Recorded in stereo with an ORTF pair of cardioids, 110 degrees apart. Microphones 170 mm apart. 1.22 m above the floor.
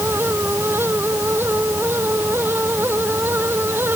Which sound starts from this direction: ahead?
A fan, at 0.0 s.